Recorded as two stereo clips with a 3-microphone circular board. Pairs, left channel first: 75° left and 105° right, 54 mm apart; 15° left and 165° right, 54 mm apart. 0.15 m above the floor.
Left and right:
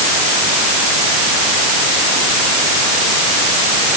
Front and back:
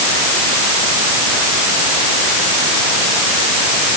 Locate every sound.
Only background noise.